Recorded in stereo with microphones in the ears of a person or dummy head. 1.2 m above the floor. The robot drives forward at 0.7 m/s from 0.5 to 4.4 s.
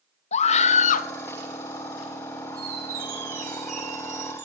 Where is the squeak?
50° right (ahead or behind), 5.5 m; by 4.5 s 40° right (ahead or behind), 6.5 m.